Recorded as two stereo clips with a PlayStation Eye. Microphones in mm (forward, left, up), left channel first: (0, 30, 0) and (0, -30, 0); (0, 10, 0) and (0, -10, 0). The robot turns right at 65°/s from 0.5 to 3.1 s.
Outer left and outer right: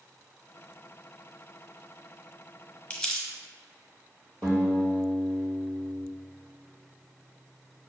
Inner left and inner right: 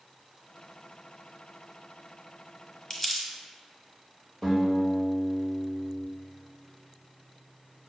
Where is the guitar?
25° left (ahead or behind), 1.5 m.